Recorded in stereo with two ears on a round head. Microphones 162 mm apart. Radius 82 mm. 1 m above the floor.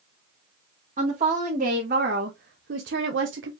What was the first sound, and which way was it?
A woman speaking, 40° right (ahead or behind).